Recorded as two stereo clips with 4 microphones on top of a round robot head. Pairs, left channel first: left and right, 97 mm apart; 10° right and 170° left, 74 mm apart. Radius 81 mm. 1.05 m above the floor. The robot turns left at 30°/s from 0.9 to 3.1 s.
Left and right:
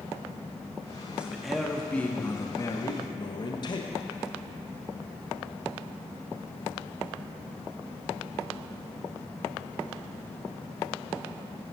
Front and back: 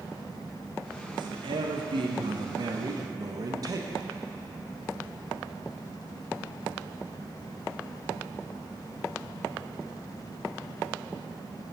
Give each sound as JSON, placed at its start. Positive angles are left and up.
{"t": 1.1, "sound": "a man speaking", "azimuth_deg": -170, "distance_m": 0.9}